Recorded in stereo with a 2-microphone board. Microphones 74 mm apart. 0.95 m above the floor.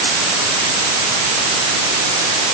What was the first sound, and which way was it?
Only background noise.